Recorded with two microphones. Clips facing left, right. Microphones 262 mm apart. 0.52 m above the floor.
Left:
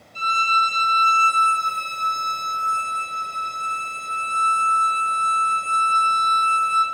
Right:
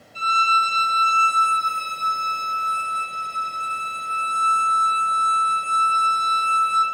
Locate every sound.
0.1 s a violin: 50° left (ahead or behind), 0.7 m